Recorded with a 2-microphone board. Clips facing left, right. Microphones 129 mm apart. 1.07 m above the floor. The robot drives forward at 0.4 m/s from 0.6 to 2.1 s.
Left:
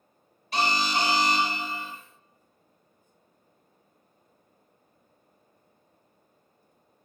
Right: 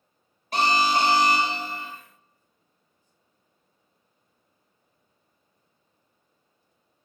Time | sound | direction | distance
0.5 | an alarm | 50° right (ahead or behind) | 1.3 m